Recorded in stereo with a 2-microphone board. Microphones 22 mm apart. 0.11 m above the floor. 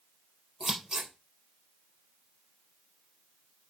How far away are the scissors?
About 3.5 m.